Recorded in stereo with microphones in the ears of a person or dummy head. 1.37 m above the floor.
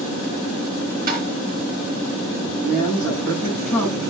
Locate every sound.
1.1 s tapping: 45° right (ahead or behind), 4.5 m
2.6 s a man speaking: 10° left (ahead or behind), 8.5 m